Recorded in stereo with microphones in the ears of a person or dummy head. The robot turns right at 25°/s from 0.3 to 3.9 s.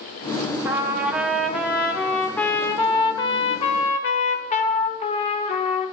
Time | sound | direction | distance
0.7 | a trumpet | 20° right | 0.5 m